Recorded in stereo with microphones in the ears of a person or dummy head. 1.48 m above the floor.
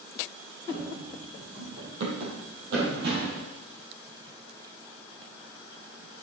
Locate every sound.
0.7 s running footsteps: 55° right (ahead or behind), 4 m